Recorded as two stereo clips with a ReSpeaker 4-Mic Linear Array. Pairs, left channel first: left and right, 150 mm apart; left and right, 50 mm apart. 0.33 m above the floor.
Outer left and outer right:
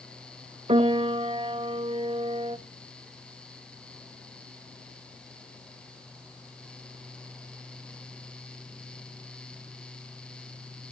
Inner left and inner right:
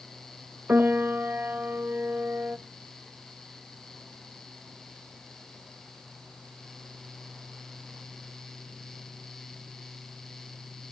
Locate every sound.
0.7 s a piano: 40° right (ahead or behind), 0.7 m